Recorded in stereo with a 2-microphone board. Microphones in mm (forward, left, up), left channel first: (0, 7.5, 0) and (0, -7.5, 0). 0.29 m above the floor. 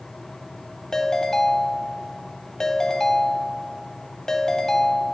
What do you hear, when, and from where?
0.9 s a ringtone: 45° left (ahead or behind), 0.9 m